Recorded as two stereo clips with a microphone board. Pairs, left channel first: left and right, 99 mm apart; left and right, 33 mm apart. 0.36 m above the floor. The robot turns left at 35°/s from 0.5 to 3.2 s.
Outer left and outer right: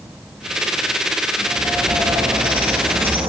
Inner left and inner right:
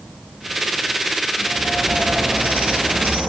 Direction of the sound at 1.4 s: 25° right.